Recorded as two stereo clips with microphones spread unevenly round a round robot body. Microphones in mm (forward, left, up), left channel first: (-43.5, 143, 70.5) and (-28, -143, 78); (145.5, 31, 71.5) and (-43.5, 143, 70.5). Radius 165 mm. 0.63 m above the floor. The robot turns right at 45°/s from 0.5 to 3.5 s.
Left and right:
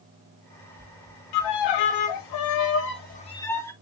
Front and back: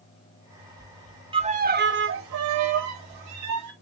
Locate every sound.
1.3 s a violin: 80° left, 0.5 m; by 3.7 s 175° left, 0.5 m